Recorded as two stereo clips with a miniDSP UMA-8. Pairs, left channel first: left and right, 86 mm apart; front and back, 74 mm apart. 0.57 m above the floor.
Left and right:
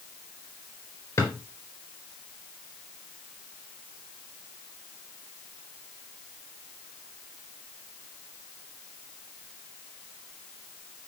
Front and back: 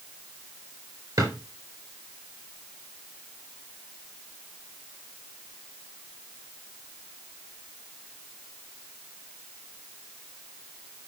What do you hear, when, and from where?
1.2 s a drawer: 150° left, 4.5 m